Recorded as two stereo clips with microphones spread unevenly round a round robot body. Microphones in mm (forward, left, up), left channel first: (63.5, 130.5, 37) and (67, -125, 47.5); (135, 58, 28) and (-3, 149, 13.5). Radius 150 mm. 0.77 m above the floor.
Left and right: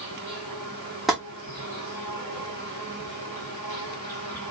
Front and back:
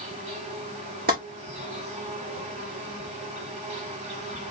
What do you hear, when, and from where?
0.0 s an insect: 165° left, 2.5 m
1.1 s tapping: straight behind, 2.5 m